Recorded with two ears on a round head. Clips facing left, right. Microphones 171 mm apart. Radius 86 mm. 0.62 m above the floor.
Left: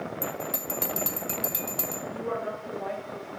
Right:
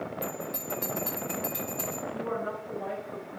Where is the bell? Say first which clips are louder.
Left 2 dB; 65° left (ahead or behind), 3.5 m.